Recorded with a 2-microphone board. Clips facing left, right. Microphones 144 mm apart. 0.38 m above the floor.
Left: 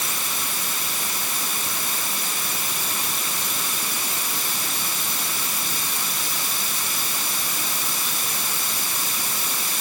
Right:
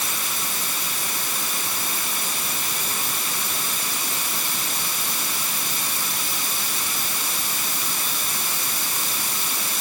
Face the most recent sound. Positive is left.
No sound to turn to.